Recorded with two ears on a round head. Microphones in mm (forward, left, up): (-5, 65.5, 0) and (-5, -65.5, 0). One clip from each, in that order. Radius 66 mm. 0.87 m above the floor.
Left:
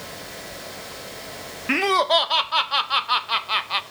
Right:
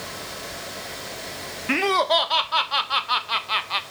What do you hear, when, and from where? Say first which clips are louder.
1.7 s laughter: left 1 dB; 5° left (ahead or behind), 0.6 m